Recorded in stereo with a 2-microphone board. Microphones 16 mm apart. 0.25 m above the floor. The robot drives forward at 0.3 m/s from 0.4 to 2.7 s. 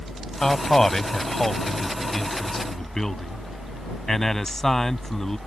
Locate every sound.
0.4 s a man speaking: 25° left (ahead or behind); by 5.4 s 20° left (ahead or behind)